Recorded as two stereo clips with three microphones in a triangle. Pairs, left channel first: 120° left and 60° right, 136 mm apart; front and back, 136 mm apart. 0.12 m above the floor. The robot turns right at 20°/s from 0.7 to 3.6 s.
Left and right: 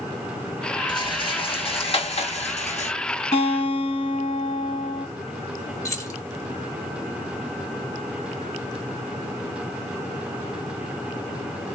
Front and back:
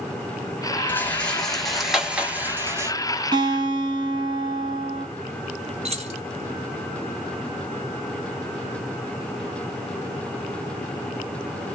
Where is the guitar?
135° left, 1.4 m; by 5.1 s 140° left, 1.4 m.